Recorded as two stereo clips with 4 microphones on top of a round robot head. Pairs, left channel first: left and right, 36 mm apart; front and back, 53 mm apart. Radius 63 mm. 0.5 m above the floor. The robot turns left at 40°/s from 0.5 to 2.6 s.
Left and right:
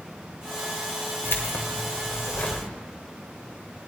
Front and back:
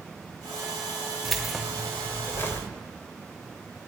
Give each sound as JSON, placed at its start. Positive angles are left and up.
{"t": 1.2, "sound": "keys jangling", "azimuth_deg": 95, "distance_m": 1.5}